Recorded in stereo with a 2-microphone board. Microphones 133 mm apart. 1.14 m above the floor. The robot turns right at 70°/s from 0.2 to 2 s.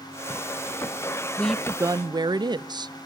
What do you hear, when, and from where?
1.4 s a woman speaking: 170° left, 0.6 m; by 2.9 s 150° right, 0.6 m